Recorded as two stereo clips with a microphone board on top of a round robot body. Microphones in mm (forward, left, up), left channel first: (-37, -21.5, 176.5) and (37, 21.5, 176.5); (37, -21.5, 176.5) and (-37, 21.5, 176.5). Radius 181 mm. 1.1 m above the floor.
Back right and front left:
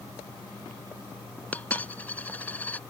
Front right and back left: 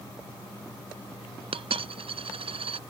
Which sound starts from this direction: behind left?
A dropped coin, at 1.5 s.